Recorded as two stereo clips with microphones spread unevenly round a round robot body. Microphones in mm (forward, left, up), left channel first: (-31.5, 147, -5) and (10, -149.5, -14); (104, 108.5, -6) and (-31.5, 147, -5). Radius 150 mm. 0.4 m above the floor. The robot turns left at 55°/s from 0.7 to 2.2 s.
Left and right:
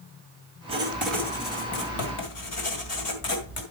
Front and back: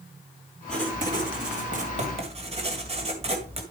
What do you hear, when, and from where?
0.7 s writing: 150° right, 2 m; by 3.6 s 125° left, 2 m